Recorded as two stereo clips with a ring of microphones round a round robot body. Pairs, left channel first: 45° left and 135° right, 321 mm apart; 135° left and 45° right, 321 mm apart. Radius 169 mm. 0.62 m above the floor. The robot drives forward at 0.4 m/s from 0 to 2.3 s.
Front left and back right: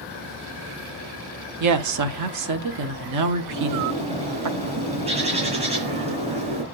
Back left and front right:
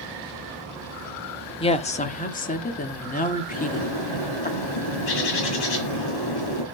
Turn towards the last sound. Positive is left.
turn(degrees=155)